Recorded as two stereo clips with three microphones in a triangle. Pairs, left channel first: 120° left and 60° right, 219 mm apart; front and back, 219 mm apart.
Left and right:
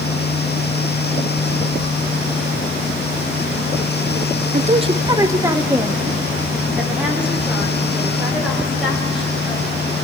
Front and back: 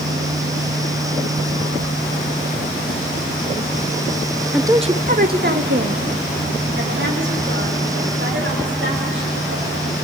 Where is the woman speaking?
90° right, 0.7 m; by 9.9 s 150° right, 8.5 m.